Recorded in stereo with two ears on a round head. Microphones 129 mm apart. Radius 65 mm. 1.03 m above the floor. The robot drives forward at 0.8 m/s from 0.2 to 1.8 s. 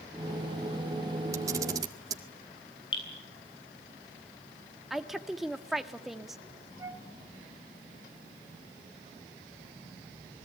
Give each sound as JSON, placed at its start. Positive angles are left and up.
{"t": 1.3, "sound": "a camera shutter", "side_deg": -20, "distance_m": 2.0}
{"t": 2.9, "sound": "dripping", "side_deg": 35, "distance_m": 9.5}
{"t": 4.9, "sound": "a woman speaking", "side_deg": 0, "distance_m": 1.5}
{"t": 6.8, "sound": "a flute", "side_deg": -20, "distance_m": 2.5}